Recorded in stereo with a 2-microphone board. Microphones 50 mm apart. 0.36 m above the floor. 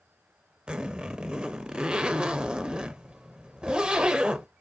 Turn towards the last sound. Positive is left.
turn(degrees=-20)  # may be behind; listen again after turning